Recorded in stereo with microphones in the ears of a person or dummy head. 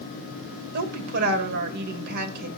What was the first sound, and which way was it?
A woman speaking, 55° right (ahead or behind).